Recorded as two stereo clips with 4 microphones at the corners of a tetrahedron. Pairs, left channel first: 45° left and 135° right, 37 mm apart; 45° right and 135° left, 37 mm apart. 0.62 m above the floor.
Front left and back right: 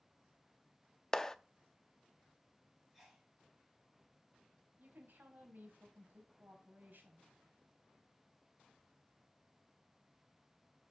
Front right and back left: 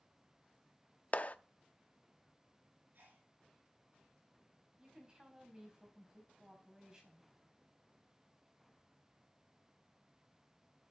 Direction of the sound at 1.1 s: 30° right.